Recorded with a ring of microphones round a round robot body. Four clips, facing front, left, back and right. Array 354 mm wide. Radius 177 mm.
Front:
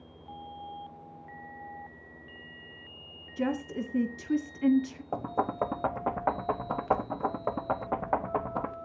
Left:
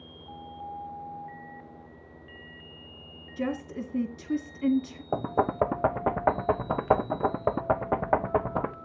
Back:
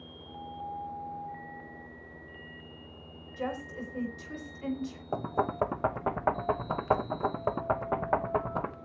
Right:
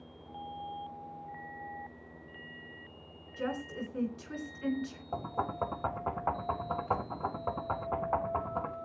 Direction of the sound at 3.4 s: 45° left.